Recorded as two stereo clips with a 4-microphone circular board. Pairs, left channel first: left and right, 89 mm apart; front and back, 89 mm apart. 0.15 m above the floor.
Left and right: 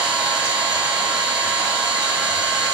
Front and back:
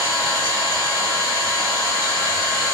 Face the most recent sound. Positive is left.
turn(degrees=-130)